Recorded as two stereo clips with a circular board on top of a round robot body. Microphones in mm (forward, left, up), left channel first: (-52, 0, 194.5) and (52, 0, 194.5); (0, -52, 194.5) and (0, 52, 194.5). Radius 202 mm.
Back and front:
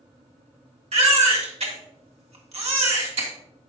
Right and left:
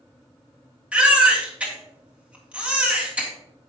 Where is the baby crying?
10° left, 2.5 m.